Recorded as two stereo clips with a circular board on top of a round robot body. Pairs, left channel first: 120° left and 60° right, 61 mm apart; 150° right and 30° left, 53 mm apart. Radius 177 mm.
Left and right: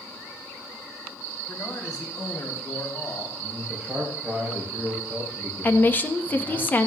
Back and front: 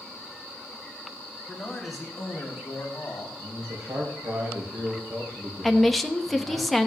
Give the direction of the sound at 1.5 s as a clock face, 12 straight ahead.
8 o'clock.